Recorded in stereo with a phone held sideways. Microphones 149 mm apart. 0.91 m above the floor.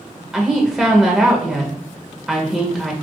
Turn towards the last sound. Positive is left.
turn(degrees=-5)  # may be behind; listen again after turning